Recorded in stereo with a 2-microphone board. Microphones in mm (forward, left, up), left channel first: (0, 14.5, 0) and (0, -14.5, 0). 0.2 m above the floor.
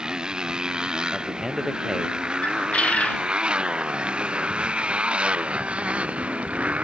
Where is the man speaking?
10° right (ahead or behind).